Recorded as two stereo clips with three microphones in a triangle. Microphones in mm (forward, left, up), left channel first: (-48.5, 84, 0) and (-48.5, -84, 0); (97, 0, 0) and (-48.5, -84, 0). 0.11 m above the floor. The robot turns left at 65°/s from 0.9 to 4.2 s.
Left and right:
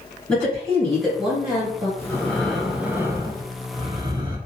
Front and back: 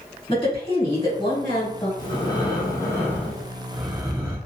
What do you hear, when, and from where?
0.3 s a woman speaking: 10° left, 2.0 m; by 1.9 s 50° right, 2.0 m
2.0 s breathing: 40° left, 0.7 m; by 4.4 s 105° right, 0.7 m